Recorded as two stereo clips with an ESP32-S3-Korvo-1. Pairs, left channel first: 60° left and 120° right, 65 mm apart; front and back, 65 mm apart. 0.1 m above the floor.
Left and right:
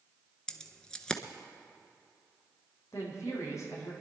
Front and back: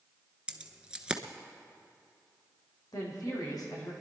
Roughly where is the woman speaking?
Ahead.